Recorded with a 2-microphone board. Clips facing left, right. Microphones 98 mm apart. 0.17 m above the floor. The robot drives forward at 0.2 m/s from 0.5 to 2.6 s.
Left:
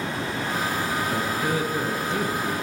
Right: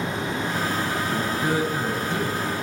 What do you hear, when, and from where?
1.1 s a man speaking: 35° right (ahead or behind), 2 m